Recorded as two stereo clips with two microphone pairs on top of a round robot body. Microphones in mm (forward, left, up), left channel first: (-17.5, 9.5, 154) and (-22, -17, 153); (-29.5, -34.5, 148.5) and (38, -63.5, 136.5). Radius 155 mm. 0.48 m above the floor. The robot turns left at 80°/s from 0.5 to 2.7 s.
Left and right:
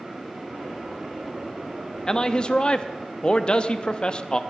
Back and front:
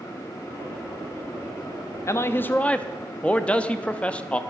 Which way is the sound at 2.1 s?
130° left.